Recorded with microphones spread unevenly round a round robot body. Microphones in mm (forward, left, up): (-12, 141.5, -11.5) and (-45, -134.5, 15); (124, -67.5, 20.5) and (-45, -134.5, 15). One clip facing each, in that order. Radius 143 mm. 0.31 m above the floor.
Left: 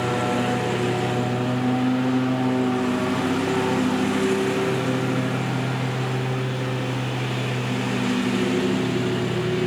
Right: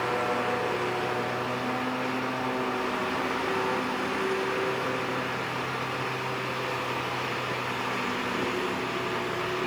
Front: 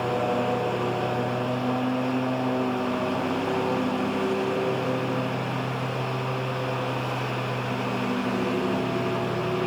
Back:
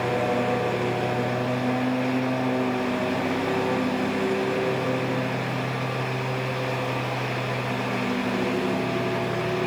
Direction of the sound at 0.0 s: 115° left.